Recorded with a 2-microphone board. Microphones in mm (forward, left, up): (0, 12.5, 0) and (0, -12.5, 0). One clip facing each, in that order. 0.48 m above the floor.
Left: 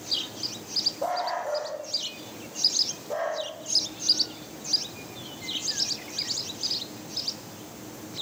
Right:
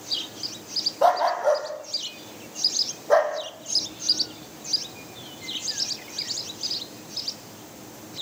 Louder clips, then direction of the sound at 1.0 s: Right 9 dB; 60° right (ahead or behind).